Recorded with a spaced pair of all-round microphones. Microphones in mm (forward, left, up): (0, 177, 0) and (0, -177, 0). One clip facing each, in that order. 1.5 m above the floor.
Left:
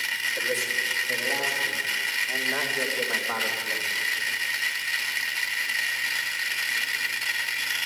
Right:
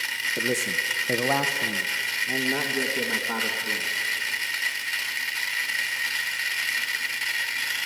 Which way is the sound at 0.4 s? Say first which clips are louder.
Right 4 dB; 50° right (ahead or behind).